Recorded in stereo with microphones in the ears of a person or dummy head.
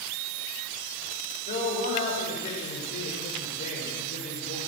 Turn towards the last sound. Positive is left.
turn(degrees=45)  # may be behind; listen again after turning